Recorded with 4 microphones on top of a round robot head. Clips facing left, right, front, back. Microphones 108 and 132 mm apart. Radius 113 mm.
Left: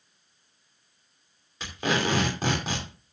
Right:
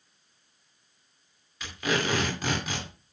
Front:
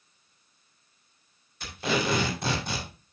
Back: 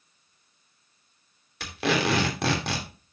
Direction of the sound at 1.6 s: 160° left.